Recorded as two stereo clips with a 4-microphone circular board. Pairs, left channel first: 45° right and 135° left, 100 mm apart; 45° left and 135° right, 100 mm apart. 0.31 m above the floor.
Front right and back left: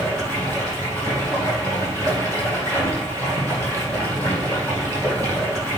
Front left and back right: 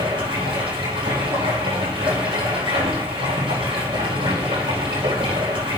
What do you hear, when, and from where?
0.0 s running water: 115° right, 4.5 m